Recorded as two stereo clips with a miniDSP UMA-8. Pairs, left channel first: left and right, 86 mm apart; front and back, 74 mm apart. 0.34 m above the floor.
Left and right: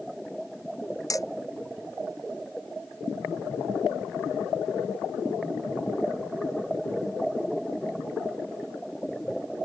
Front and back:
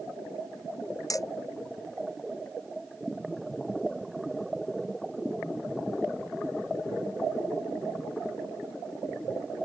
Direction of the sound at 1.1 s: 40° left.